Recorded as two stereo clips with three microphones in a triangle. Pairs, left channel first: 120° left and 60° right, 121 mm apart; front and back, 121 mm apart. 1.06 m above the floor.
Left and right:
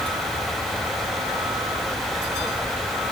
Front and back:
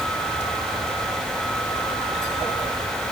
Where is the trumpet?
No trumpet in this recording.